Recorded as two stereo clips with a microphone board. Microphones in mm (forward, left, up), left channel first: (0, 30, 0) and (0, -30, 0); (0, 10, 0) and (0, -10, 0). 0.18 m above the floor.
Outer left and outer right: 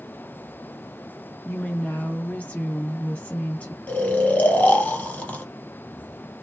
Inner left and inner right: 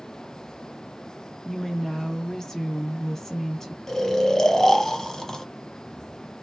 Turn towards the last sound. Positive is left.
turn(degrees=25)  # may be behind; listen again after turning